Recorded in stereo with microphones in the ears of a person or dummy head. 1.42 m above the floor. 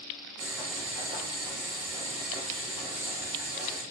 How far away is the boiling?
About 1.0 m.